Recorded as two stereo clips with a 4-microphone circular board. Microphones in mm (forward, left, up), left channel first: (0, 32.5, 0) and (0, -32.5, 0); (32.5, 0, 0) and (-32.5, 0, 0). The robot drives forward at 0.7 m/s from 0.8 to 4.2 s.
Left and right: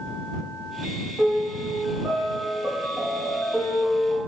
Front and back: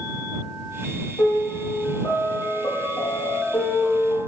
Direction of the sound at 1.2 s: 10° right.